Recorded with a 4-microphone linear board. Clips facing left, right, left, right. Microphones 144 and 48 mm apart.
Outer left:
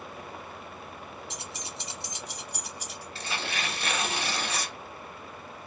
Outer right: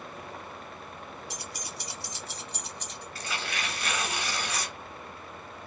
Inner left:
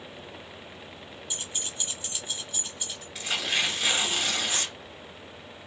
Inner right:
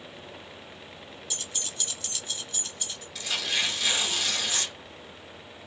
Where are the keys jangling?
20° left (ahead or behind), 0.6 m; by 3.0 s 10° left (ahead or behind), 1.0 m.